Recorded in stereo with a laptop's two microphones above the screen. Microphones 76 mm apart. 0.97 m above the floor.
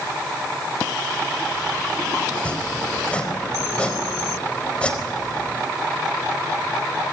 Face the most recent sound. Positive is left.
turn(degrees=15)  # may be behind; listen again after turning